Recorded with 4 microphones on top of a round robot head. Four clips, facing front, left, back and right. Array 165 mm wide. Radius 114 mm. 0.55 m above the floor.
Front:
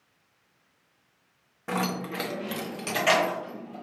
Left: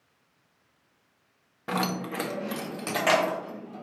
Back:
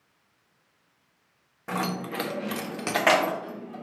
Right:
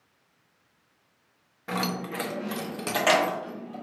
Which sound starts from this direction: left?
Keys jangling, at 1.7 s.